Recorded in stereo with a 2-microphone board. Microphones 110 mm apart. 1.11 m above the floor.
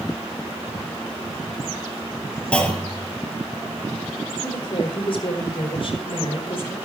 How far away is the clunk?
About 6 m.